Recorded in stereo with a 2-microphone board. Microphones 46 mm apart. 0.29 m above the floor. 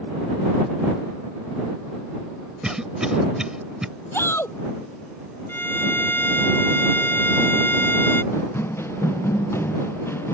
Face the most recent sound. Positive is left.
turn(degrees=60)  # may be behind; listen again after turning